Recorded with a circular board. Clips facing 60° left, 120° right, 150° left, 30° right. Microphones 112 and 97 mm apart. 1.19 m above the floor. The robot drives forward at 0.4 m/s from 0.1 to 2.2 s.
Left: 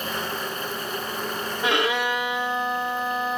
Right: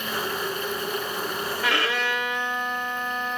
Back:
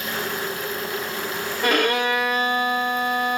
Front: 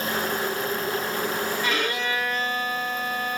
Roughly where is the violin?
Behind left.